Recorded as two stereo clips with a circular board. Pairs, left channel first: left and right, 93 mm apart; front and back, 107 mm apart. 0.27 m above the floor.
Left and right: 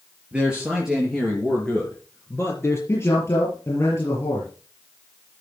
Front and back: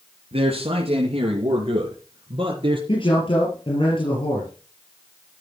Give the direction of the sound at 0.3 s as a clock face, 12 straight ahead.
6 o'clock.